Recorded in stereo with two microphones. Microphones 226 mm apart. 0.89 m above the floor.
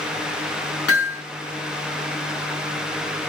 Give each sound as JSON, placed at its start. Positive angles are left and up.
{"t": 0.9, "sound": "hammering", "side_deg": 80, "distance_m": 5.5}